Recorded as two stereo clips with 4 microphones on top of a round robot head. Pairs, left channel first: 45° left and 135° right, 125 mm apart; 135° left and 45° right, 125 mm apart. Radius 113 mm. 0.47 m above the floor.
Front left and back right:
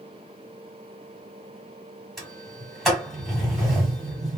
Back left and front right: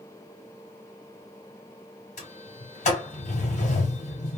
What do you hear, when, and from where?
2.2 s a sliding door: 130° left, 1.9 m